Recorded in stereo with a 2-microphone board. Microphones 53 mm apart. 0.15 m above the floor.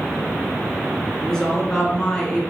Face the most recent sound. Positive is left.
turn(degrees=15)  # may be behind; listen again after turning